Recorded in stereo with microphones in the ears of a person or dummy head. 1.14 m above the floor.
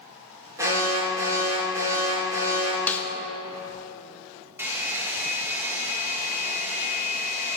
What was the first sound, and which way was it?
An alarm, 15° right (ahead or behind).